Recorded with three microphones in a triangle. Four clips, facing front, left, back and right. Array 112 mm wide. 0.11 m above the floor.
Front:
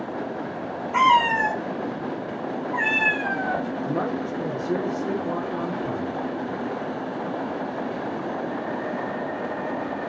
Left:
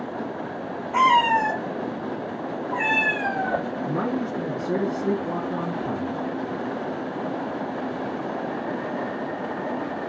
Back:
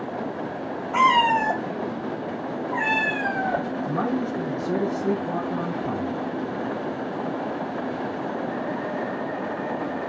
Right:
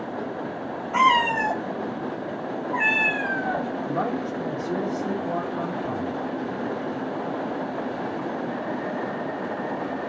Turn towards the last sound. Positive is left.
turn(degrees=100)